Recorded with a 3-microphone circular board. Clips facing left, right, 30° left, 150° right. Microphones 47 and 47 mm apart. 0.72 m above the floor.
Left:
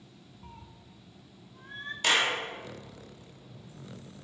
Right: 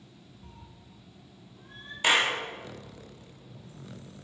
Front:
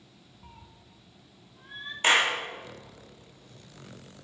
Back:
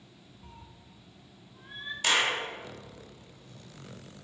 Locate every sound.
0.4 s a cat meowing: 90° left, 0.7 m; by 1.9 s 125° left, 1.3 m
2.0 s a clap: 25° right, 1.2 m